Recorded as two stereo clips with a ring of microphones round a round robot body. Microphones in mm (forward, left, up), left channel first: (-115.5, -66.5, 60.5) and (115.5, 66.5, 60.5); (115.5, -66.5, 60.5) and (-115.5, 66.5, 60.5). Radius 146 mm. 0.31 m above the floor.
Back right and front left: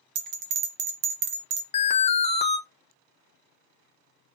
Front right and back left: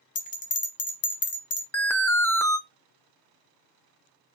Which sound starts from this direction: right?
An alarm, at 1.7 s.